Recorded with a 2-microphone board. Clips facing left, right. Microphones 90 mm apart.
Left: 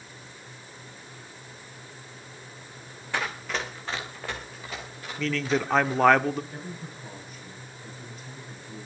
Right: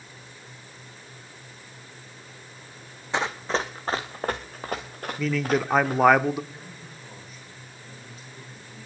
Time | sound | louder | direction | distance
3.1 | running footsteps | right 4 dB | 20° right (ahead or behind) | 1.5 m
5.2 | a man speaking | right 2 dB | 5° right (ahead or behind) | 0.7 m
6.5 | a man speaking | left 5 dB | 45° left (ahead or behind) | 7 m